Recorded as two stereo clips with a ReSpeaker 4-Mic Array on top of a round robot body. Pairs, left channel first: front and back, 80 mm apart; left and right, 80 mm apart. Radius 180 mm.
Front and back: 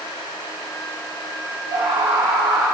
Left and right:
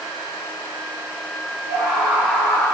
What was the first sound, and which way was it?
A scream, 165° right.